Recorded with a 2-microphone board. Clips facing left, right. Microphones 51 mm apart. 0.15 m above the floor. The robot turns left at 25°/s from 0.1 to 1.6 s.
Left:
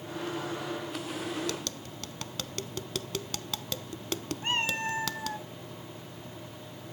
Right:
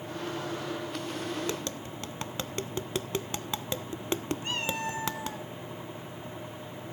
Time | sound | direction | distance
1.5 | tapping | 25° right (ahead or behind) | 0.6 m
4.4 | a cat meowing | 35° left (ahead or behind) | 1.4 m